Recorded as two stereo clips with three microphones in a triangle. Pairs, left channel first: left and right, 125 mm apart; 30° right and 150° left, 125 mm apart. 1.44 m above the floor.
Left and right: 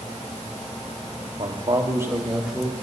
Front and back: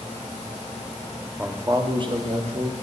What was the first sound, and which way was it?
A man speaking, 130° right.